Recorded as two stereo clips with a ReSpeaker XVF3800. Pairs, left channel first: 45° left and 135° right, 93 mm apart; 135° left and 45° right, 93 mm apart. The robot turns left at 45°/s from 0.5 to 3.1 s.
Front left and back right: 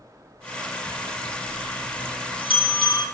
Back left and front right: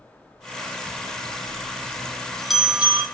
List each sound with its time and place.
0.9 s a bell: 115° left, 3 m; by 3.0 s 20° left, 3 m